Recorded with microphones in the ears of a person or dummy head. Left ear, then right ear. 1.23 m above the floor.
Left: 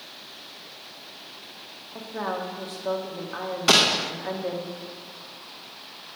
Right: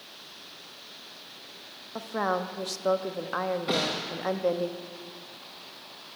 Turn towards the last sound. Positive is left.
turn(degrees=60)  # may be behind; listen again after turning